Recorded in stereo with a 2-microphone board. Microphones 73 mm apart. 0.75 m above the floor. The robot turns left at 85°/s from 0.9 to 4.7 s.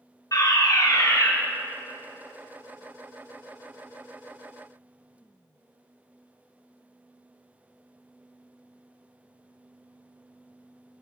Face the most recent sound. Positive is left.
turn(degrees=105)